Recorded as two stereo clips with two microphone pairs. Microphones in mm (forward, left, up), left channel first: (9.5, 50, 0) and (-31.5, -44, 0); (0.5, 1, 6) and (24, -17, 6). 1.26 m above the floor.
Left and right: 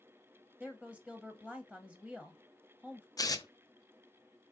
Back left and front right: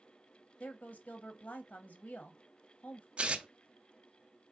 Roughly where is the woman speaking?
Behind left.